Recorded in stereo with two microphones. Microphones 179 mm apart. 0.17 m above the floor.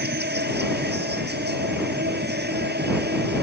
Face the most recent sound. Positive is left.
turn(degrees=-70)  # may be behind; listen again after turning